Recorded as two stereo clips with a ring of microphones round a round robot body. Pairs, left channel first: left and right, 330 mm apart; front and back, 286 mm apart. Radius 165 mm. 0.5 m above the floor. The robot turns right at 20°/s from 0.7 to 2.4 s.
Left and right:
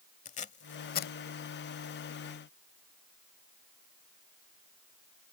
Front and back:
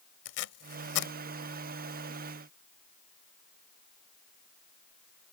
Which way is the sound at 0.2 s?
20° left.